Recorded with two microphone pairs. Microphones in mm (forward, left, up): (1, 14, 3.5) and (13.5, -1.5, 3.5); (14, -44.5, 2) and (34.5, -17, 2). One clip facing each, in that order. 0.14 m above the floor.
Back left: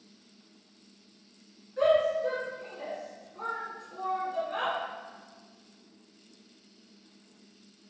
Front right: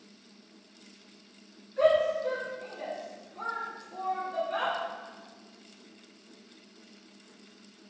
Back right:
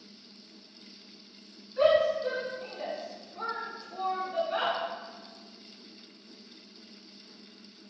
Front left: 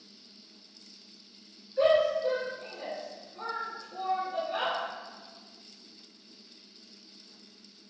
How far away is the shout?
About 1.7 m.